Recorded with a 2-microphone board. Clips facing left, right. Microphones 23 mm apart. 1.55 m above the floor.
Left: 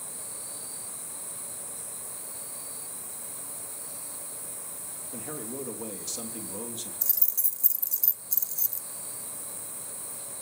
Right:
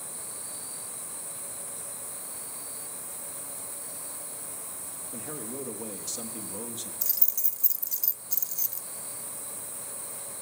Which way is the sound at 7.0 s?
15° right (ahead or behind).